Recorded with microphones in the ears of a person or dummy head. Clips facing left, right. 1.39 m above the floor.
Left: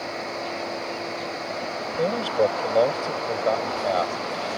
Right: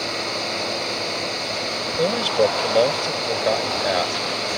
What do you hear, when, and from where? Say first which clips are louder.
0.0 s a fan: right 3 dB; 40° right (ahead or behind)
2.0 s a man speaking: right 3 dB; 15° right (ahead or behind)